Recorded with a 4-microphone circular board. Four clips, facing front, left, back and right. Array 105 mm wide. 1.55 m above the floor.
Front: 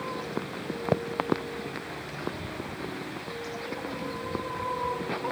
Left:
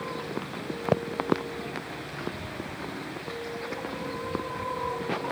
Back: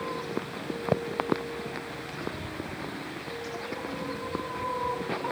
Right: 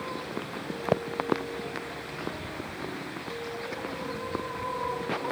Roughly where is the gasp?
No gasp in this recording.